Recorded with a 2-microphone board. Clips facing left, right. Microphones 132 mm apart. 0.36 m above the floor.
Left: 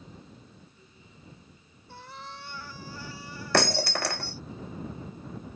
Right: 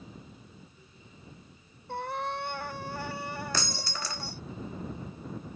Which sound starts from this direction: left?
Breaking glass, at 3.5 s.